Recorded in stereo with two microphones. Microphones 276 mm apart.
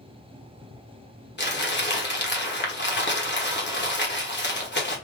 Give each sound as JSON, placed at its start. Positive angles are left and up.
{"t": 1.4, "sound": "crumpling", "side_deg": 40, "distance_m": 1.0}